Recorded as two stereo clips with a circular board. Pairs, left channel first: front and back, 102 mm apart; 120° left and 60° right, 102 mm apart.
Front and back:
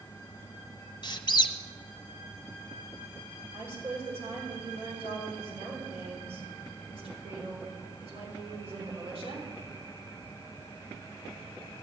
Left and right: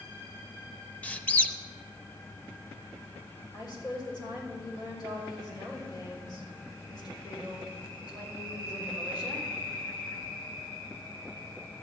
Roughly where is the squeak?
Ahead left.